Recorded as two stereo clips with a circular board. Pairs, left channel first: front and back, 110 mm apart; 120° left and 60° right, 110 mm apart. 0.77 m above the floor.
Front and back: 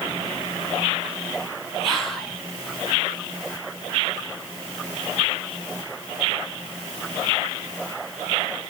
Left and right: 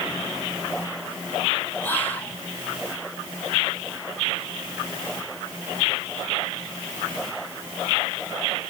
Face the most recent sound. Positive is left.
turn(degrees=80)